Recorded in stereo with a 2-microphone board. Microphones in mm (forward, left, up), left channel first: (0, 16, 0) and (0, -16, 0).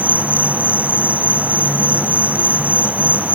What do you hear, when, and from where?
0.0 s an insect: 55° right (ahead or behind)